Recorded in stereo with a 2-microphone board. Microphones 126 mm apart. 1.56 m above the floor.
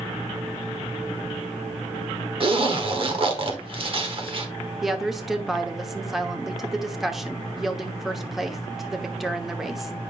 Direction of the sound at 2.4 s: 45° right (ahead or behind).